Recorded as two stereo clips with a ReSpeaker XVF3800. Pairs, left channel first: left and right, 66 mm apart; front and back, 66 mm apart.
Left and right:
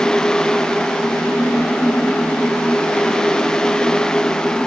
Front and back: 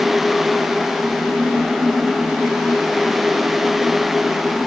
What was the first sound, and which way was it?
Only background noise.